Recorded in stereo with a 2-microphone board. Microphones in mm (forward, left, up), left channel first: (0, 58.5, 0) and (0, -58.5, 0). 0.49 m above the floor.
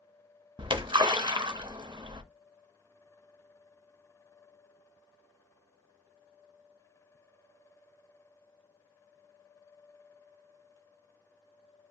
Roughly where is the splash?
Right.